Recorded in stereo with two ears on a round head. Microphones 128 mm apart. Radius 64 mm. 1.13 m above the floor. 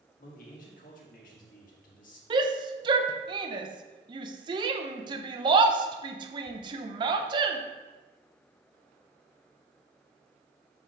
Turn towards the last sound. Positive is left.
turn(degrees=-35)  # may be behind; listen again after turning